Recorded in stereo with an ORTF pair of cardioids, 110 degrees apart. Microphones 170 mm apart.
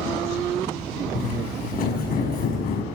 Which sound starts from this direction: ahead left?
Footsteps, at 1.1 s.